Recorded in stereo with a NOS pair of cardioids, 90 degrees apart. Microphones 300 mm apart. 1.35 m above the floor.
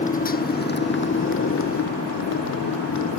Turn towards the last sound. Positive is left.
turn(degrees=65)